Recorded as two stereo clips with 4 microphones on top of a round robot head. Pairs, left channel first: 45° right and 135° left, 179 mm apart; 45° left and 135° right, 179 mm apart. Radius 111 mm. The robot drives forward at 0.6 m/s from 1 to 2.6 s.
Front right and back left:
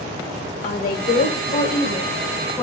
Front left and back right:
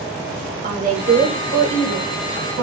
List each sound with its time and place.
0.6 s a woman speaking: 90° right, 1.3 m; by 2.6 s 125° right, 1.6 m